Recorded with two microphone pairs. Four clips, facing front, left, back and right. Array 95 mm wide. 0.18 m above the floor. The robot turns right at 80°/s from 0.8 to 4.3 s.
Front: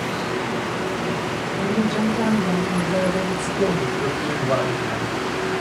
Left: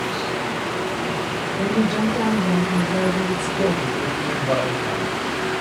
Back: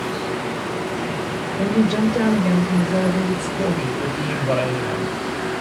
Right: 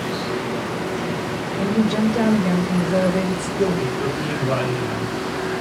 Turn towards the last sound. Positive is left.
turn(degrees=-145)